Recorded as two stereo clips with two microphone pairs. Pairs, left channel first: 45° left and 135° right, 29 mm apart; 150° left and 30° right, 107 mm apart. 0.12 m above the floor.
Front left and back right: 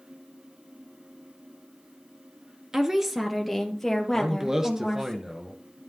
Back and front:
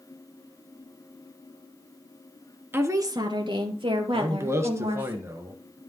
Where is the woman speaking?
85° right, 1.5 m; by 5.1 s 30° right, 4.5 m.